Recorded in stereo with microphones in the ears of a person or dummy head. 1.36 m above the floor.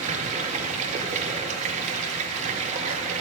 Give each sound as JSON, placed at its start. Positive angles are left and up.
{"t": 0.0, "sound": "running water", "side_deg": -35, "distance_m": 0.7}